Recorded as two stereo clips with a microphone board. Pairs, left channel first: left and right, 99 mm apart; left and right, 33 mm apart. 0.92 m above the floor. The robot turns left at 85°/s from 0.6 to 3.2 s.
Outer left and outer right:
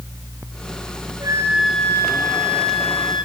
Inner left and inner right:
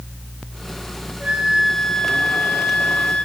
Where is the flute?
140° right, 3.5 m; by 3.2 s 50° left, 3.5 m.